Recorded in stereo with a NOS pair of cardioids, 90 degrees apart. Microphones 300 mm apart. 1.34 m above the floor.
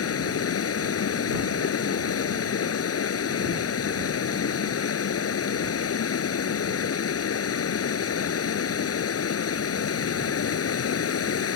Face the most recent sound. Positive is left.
turn(degrees=50)